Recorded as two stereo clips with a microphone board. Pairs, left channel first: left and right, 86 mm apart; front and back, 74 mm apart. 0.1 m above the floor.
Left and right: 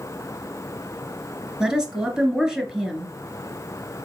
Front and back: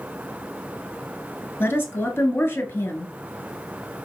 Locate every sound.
1.6 s a woman speaking: 20° right, 1.2 m